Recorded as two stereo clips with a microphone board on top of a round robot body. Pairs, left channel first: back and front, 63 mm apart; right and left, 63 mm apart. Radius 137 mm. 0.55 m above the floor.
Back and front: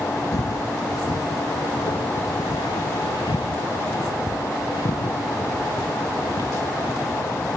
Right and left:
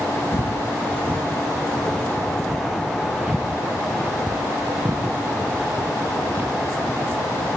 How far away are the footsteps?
About 1.6 m.